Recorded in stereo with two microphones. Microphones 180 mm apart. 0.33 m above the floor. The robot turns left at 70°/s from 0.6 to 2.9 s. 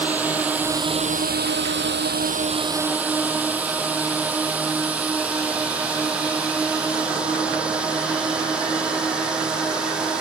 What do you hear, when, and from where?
0.0 s a drone: 10° right (ahead or behind); by 10.2 s 5° right (ahead or behind)